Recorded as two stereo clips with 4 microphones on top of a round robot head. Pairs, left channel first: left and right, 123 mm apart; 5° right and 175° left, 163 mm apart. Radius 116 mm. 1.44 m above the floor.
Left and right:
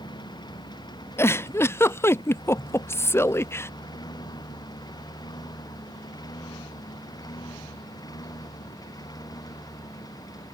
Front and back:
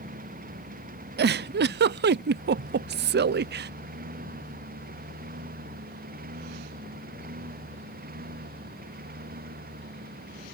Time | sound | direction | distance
0.0 | a lawn mower | 145° left | ?
1.2 | a giggle | 160° left | ?